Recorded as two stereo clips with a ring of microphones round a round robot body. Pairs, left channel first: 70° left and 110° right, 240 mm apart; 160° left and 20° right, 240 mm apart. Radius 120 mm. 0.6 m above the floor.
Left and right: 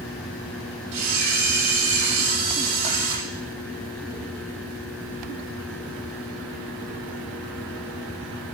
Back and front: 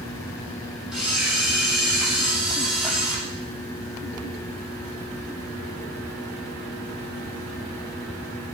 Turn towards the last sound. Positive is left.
turn(degrees=-110)